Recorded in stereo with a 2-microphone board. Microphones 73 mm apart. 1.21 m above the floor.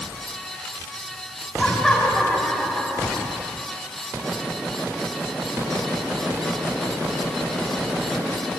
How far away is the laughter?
About 8 m.